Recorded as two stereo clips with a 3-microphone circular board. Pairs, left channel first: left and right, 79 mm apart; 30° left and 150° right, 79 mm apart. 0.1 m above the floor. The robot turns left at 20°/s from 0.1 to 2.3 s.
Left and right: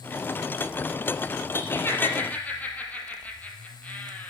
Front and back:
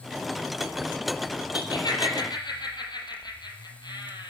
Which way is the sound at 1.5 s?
35° left.